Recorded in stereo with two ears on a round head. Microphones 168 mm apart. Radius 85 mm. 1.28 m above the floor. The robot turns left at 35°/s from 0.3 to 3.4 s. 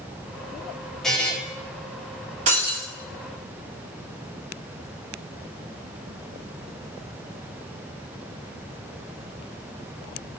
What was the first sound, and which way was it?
A buzzer, centre (ahead or behind).